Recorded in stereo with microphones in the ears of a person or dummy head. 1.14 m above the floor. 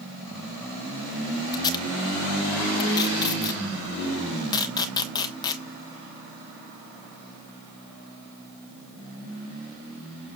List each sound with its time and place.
1.5 s tape being pulled: 25° left (ahead or behind), 1.1 m